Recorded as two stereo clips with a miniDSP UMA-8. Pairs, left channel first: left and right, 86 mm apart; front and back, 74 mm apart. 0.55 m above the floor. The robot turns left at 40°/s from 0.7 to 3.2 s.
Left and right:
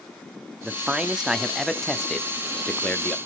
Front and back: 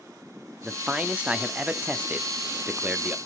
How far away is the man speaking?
About 0.7 m.